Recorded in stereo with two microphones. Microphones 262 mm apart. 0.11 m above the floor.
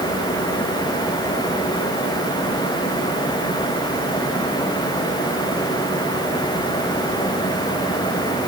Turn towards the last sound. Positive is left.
No sound to turn to.